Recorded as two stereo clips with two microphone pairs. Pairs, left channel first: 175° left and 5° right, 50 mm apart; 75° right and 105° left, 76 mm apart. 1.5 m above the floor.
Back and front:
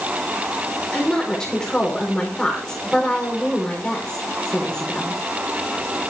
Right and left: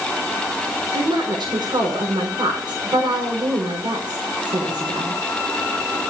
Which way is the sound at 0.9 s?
100° left.